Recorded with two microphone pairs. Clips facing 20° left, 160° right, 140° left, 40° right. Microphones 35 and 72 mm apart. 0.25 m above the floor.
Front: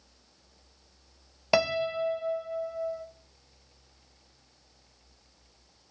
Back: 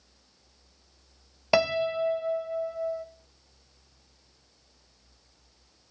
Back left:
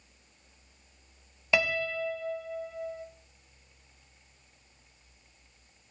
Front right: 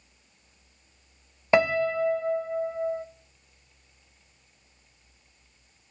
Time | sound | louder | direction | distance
1.5 | a piano | back 2 dB, front right 7 dB | 75° right | 0.5 m